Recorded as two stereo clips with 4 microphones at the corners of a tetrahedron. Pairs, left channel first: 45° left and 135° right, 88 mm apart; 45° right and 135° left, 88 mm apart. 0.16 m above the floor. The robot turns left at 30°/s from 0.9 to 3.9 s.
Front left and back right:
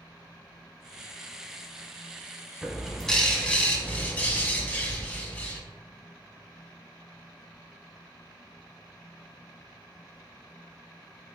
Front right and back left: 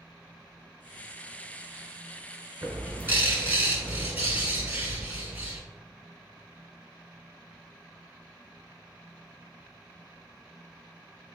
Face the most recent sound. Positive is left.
turn(degrees=100)